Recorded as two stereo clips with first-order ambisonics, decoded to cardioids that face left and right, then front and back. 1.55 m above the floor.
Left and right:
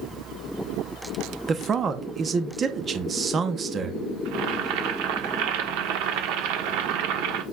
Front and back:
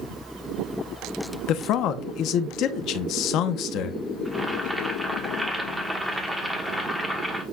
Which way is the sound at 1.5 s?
25° right.